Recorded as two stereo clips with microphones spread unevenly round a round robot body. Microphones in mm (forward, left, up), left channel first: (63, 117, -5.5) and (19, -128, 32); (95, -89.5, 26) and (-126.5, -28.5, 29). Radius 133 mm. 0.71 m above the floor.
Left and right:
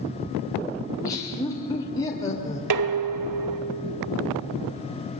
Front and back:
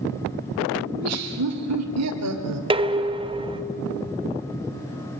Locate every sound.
0.9 s laughter: 155° left, 2.5 m
2.7 s dishes clattering: 125° right, 1.3 m